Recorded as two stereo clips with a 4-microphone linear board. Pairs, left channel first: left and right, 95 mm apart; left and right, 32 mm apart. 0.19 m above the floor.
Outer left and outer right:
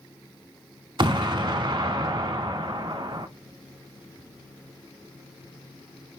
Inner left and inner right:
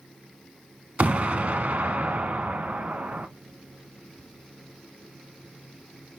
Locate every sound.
1.0 s an explosion: 55° right (ahead or behind), 0.5 m